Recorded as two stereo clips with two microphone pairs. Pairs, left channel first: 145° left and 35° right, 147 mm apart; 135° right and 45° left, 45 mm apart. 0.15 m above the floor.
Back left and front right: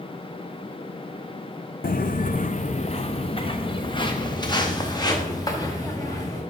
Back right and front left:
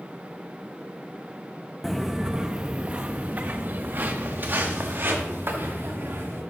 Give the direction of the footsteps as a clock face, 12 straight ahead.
7 o'clock.